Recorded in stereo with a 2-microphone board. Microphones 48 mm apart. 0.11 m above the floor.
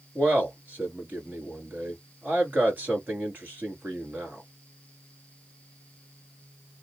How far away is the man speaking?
About 1.6 m.